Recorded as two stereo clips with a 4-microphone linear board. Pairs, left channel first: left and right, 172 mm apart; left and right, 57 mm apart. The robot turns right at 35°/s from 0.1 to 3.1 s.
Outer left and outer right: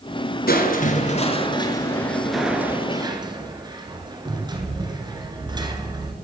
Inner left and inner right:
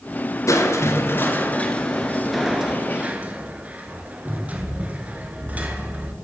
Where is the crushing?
115° left, 1.1 m; by 6.1 s 155° right, 1.1 m.